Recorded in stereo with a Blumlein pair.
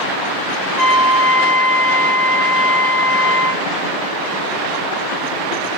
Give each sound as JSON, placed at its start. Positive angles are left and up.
{"t": 0.8, "sound": "a trumpet", "azimuth_deg": -5, "distance_m": 2.0}